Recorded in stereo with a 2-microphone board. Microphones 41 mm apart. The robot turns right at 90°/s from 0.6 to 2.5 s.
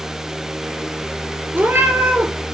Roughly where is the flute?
I don't hear a flute.